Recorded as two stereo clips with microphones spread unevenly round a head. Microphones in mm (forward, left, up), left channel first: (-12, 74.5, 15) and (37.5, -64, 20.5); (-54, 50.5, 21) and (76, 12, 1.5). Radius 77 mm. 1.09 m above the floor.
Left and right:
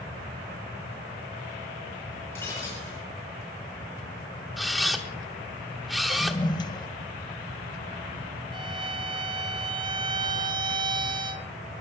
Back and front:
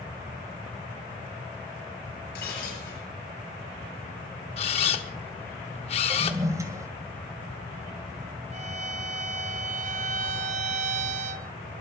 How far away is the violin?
About 0.8 m.